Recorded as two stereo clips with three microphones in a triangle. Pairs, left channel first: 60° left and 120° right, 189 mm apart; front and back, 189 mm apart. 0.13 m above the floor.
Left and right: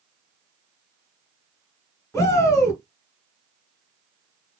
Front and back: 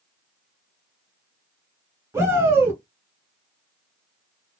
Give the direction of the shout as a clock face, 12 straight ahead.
8 o'clock.